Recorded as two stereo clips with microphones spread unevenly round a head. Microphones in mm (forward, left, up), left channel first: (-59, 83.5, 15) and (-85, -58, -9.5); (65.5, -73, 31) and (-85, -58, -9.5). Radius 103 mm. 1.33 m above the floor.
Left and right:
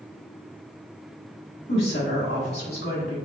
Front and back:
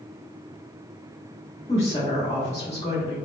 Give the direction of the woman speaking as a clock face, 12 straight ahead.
10 o'clock.